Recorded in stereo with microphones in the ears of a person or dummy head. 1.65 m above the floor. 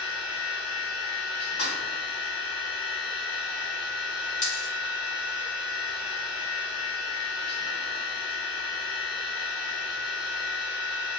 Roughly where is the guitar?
I don't hear a guitar.